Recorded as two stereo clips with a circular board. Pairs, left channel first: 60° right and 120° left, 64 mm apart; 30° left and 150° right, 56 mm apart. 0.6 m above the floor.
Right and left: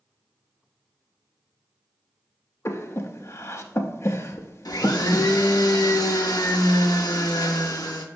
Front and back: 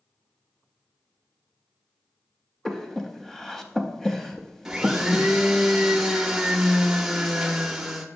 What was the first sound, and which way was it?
Breathing, 50° right.